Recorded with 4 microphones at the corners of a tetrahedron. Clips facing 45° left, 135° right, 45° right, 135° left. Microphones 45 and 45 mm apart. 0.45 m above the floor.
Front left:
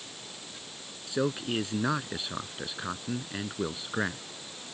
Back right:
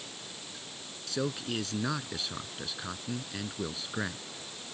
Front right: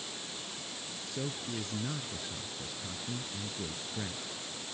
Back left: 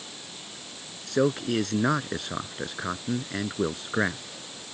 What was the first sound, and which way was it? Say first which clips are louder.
A man speaking: front left 4 dB, back left 15 dB; 115° left.